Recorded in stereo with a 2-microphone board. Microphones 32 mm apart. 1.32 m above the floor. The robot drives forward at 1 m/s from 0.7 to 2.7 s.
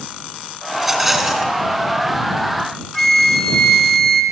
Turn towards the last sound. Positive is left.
turn(degrees=10)  # may be behind; listen again after turning